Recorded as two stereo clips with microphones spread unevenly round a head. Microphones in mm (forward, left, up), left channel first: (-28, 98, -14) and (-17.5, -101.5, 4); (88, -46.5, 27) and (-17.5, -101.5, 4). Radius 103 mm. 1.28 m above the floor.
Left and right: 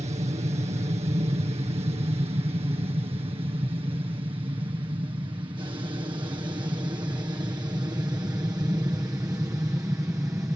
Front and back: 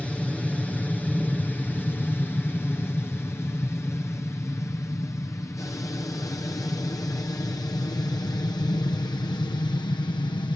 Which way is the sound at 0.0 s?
65° right.